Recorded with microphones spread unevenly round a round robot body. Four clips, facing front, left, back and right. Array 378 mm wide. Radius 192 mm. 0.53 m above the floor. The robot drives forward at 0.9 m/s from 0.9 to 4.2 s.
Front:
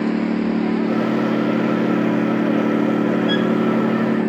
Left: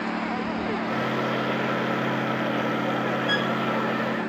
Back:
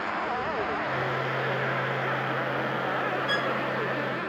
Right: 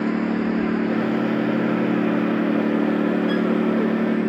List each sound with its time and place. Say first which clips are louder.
0.0 s a lawn mower: right 6 dB, front 10 dB; 30° right
3.3 s a violin: right 5 dB, front 10 dB; 115° left; by 3.6 s 140° left